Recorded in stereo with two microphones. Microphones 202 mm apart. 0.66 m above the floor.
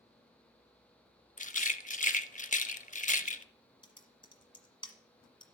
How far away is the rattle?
About 0.5 m.